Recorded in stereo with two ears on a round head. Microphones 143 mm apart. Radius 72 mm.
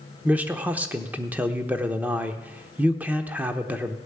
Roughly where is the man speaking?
Centre.